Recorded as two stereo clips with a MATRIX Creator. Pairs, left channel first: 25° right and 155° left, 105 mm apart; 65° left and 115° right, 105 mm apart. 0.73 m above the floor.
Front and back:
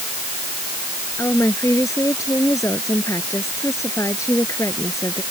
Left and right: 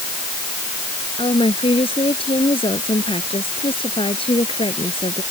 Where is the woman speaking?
35° left.